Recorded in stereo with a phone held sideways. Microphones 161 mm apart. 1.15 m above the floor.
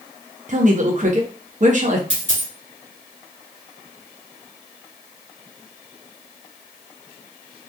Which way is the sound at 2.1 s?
45° right (ahead or behind).